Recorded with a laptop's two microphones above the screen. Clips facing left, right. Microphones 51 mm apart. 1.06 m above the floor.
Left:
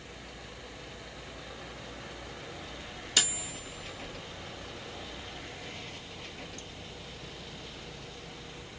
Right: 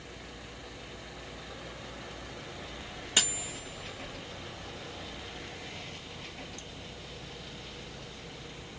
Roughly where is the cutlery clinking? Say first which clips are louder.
Even; right.